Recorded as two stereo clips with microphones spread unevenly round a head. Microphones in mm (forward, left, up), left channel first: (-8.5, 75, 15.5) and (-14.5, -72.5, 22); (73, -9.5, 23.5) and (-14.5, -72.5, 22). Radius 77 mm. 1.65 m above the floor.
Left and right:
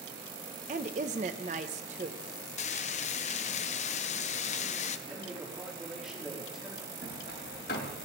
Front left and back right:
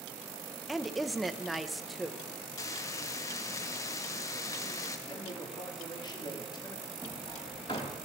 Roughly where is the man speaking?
Ahead.